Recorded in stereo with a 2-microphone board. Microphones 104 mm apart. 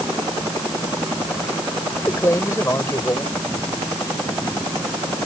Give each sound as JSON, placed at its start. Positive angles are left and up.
{"t": 2.0, "sound": "a man speaking", "side_deg": 30}